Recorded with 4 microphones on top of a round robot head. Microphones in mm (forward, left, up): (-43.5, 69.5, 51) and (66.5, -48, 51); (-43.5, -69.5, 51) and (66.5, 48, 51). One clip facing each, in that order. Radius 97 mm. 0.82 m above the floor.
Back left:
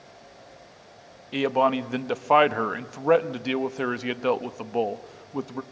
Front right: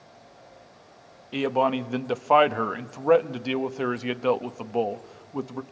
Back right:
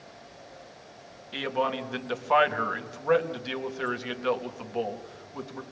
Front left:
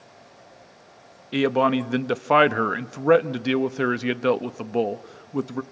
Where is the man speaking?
45° left, 1.0 m.